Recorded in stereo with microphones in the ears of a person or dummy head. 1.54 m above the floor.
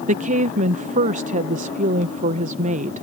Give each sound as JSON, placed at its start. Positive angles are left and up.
{"t": 0.1, "sound": "a woman speaking", "side_deg": -40}